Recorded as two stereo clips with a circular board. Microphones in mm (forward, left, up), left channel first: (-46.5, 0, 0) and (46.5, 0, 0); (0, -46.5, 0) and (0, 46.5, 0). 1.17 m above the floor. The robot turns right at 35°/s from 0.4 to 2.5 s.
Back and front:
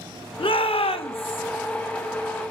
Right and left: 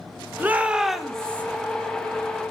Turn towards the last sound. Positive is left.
turn(degrees=-125)